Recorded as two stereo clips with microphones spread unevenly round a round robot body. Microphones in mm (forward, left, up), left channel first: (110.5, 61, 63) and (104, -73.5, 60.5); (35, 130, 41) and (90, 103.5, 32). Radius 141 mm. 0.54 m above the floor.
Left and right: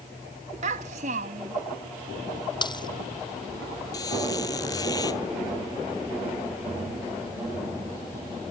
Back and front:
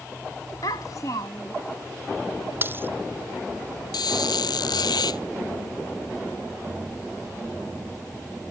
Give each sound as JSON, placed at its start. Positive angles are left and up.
{"t": 0.6, "sound": "a child speaking", "azimuth_deg": -145}
{"t": 2.6, "sound": "a dropped coin", "azimuth_deg": 30}
{"t": 3.9, "sound": "a squeak", "azimuth_deg": 160}